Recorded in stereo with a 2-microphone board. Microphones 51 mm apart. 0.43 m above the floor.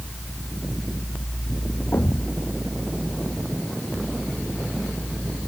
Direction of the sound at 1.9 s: 60° left (ahead or behind).